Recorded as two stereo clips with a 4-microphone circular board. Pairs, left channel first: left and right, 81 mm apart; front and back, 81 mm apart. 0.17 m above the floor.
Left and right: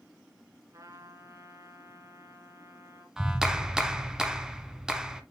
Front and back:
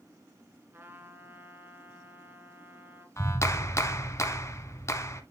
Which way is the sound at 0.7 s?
120° right.